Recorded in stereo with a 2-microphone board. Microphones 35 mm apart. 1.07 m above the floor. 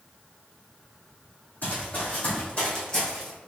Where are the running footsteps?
55° left (ahead or behind), 2.0 m; by 3.3 s 20° left (ahead or behind), 2 m.